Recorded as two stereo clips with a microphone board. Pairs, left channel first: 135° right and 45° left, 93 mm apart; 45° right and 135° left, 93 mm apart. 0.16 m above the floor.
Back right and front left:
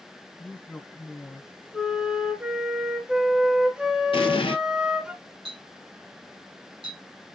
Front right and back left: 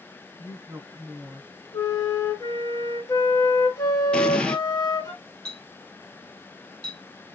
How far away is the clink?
About 4 m.